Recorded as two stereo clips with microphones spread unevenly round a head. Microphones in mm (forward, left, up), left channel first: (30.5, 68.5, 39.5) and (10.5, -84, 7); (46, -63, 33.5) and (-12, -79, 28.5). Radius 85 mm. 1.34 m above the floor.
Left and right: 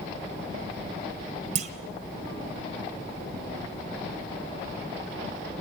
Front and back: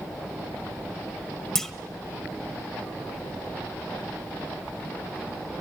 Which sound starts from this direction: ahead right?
A clunk, at 1.6 s.